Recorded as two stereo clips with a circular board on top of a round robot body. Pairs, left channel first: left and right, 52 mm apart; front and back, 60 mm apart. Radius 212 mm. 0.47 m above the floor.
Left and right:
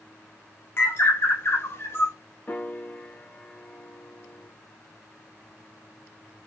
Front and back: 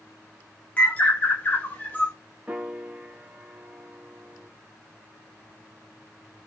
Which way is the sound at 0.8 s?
60° left.